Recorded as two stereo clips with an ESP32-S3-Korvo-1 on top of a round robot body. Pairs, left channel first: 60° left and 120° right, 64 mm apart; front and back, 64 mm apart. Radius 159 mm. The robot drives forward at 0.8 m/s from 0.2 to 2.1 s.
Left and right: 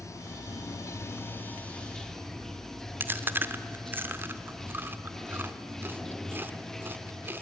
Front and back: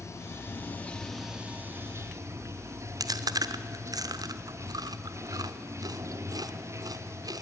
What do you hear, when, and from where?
0.0 s running water: 35° left, 1.2 m; by 7.4 s 145° left, 1.1 m
3.0 s chewing: 175° right, 1.0 m